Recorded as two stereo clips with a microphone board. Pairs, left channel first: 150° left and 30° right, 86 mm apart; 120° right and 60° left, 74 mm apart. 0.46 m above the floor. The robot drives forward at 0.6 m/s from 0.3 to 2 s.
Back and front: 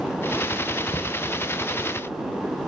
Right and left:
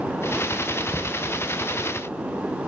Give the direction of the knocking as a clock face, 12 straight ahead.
7 o'clock.